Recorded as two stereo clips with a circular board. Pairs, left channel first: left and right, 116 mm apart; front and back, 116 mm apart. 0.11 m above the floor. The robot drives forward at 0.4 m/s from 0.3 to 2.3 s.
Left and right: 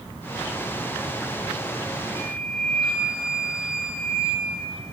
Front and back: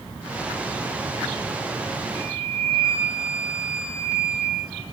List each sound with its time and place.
2.1 s a flute: 160° left, 5 m